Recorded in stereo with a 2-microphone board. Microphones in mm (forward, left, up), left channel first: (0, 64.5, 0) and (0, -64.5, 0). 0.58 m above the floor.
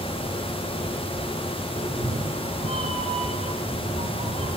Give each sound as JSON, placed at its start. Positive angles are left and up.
{"t": 1.8, "sound": "a cat meowing", "side_deg": -65, "distance_m": 7.0}